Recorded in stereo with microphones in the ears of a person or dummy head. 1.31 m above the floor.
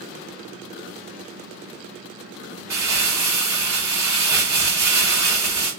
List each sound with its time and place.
2.7 s crumpling: 15° right (ahead or behind), 1.0 m